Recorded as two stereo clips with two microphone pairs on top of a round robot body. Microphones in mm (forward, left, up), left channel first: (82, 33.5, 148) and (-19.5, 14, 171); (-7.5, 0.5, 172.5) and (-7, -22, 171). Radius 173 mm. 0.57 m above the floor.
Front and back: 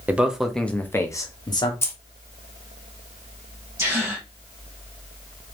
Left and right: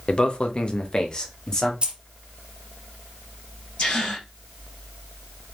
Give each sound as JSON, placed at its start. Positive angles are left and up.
{"t": 0.1, "sound": "a man speaking", "azimuth_deg": 105, "distance_m": 0.8}
{"t": 1.8, "sound": "keys jangling", "azimuth_deg": -50, "distance_m": 0.8}
{"t": 3.8, "sound": "a gasp", "azimuth_deg": 130, "distance_m": 0.9}